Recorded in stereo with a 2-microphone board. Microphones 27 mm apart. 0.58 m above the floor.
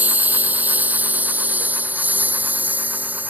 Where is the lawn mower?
75° right (ahead or behind); by 3.3 s 85° right.